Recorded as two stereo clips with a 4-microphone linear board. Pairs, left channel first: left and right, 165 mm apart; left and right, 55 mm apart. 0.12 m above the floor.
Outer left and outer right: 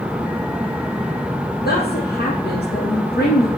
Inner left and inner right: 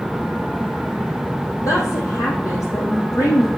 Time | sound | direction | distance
1.6 | a woman speaking | 75° left (ahead or behind) | 5 m